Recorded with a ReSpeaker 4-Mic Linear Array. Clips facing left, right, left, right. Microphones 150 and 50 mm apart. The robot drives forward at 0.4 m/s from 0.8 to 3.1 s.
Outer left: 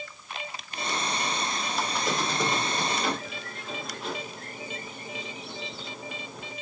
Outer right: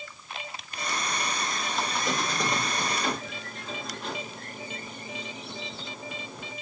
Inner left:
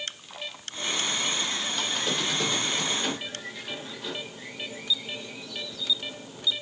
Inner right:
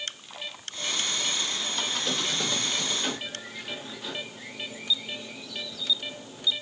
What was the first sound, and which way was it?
A squeak, 5° left (ahead or behind).